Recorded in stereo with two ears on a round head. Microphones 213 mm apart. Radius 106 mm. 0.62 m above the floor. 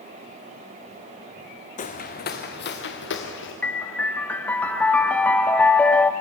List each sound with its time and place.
1.8 s footsteps: 35° left (ahead or behind), 1.7 m; by 3.5 s 55° left (ahead or behind), 3 m
3.6 s a piano: 5° left (ahead or behind), 0.9 m